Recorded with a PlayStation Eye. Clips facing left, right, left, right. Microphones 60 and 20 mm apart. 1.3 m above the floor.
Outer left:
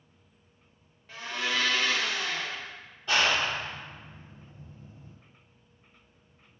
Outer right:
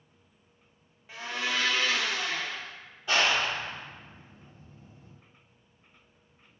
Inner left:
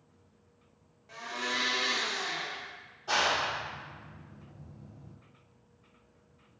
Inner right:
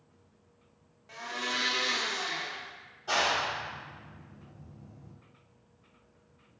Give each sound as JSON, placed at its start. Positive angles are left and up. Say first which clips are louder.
{"t": 1.1, "sound": "a blender", "louder": "even, even", "side_deg": -10, "distance_m": 0.6}
{"t": 3.1, "sound": "a clap", "louder": "even, even", "side_deg": -5, "distance_m": 1.3}